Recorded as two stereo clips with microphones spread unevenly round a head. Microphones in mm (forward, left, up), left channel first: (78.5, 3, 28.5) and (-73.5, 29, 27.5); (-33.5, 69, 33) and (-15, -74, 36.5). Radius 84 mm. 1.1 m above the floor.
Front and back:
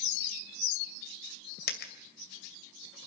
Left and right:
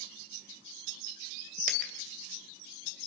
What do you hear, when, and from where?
1.7 s a dropped coin: 45° right, 2.5 m